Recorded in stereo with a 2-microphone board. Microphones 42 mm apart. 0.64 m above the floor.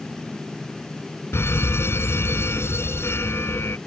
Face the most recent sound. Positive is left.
turn(degrees=80)